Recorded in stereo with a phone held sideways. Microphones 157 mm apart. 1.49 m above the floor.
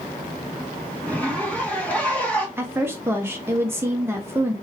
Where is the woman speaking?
15° right (ahead or behind), 0.5 m.